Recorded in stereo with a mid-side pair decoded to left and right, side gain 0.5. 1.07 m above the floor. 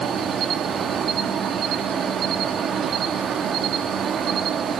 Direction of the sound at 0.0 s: 50° right.